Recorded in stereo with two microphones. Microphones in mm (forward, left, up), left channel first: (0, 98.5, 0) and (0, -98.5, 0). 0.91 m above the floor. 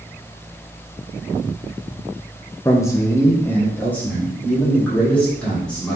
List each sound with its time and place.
2.6 s a man speaking: 15° left (ahead or behind), 0.5 m; by 6.0 s 5° left (ahead or behind), 2 m